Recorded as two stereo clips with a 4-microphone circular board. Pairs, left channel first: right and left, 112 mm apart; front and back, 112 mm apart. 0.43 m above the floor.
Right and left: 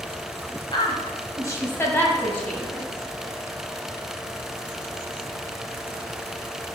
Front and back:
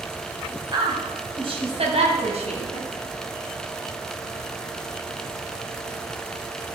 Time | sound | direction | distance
0.7 | a woman speaking | 130° right | 2.5 m